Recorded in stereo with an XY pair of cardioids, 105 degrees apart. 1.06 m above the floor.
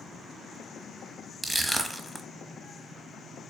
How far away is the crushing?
About 0.9 m.